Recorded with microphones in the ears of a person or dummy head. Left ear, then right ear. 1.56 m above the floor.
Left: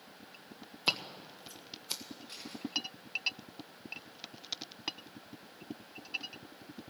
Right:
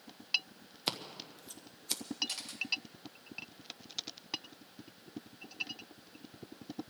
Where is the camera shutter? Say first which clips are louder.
Right 4 dB; 65° right (ahead or behind), 2 m.